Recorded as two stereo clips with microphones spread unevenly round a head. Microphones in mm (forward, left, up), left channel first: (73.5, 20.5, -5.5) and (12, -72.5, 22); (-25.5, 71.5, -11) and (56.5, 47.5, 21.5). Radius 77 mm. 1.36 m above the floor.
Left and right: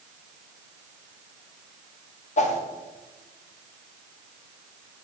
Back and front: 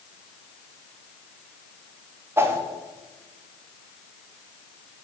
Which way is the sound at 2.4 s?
30° left.